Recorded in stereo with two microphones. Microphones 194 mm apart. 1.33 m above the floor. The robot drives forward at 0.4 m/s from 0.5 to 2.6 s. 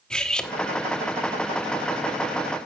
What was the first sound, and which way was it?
Cutlery clinking, 5° left (ahead or behind).